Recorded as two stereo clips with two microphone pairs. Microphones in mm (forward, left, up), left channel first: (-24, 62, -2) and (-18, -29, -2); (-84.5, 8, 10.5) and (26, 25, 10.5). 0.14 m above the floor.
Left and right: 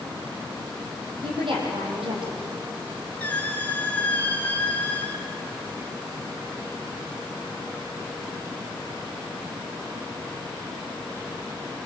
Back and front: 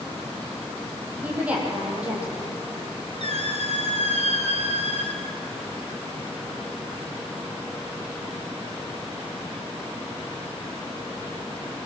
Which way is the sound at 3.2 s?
20° left.